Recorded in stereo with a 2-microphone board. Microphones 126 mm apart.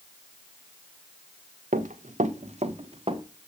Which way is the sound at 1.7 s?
80° right.